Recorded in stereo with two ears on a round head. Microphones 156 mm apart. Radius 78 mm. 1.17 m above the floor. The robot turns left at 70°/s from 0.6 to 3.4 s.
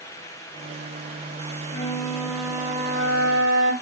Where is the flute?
45° left, 2 m; by 3.7 s 70° right, 2 m.